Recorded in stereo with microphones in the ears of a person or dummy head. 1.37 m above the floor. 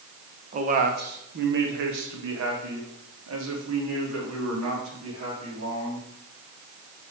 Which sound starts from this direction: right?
A man speaking, at 0.5 s.